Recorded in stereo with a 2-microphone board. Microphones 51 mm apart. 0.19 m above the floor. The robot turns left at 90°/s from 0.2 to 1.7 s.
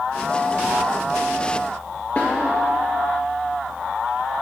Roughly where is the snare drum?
Left.